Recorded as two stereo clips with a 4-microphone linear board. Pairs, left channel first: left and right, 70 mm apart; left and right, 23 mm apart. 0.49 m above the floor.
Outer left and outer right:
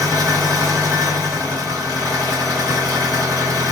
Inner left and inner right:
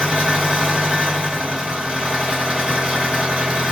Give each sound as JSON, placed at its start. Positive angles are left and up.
{"t": 0.0, "sound": "an engine running", "side_deg": -60, "distance_m": 1.5}